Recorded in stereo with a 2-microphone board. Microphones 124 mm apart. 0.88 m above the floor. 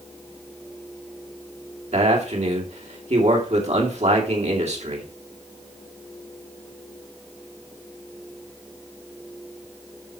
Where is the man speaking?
65° right (ahead or behind), 2.5 m.